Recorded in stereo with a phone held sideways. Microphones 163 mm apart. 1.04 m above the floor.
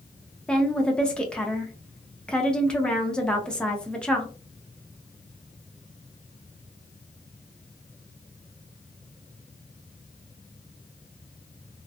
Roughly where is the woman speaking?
Centre.